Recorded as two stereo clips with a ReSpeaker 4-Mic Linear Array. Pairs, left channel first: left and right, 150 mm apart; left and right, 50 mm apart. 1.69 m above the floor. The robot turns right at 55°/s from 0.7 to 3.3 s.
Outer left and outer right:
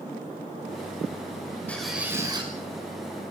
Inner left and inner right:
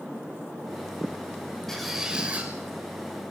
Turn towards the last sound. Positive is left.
turn(degrees=-100)